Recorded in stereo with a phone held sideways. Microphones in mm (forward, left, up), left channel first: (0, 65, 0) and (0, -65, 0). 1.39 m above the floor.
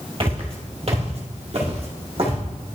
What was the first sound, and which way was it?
Footsteps, 45° right (ahead or behind).